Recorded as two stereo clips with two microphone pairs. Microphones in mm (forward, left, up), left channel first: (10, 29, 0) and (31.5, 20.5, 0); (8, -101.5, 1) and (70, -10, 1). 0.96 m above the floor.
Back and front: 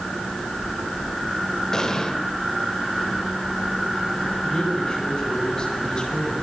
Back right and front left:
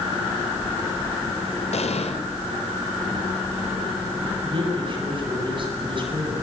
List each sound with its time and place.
1.7 s an explosion: 140° right, 2.5 m
4.4 s a man speaking: 95° left, 8.5 m